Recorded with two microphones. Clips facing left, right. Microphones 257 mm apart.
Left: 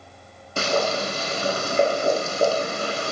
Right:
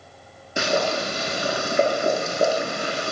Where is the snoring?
I don't hear snoring.